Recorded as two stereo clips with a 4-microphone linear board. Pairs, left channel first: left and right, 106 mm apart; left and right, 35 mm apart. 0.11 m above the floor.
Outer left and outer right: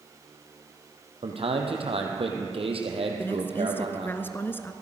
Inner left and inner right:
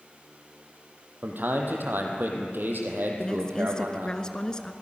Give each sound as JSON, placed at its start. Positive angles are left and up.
{"t": 1.2, "sound": "a man speaking", "side_deg": -65, "distance_m": 3.5}
{"t": 3.2, "sound": "a woman speaking", "side_deg": 20, "distance_m": 1.2}